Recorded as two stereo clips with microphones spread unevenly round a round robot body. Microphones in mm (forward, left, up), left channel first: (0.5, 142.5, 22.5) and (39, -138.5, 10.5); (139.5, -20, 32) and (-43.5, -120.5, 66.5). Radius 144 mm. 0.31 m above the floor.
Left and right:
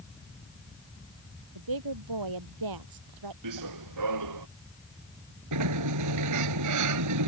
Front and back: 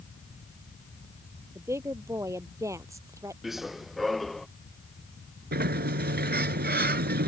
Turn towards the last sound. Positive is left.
turn(degrees=-110)